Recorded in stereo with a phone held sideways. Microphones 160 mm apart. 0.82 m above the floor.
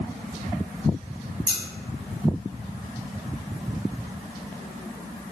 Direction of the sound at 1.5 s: 10° left (ahead or behind).